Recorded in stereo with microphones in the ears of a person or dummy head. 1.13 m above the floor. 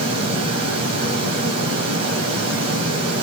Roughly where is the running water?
Right.